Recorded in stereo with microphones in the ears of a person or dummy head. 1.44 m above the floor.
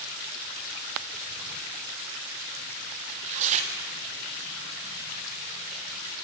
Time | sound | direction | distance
3.1 | tearing paper | 40° right (ahead or behind) | 0.8 m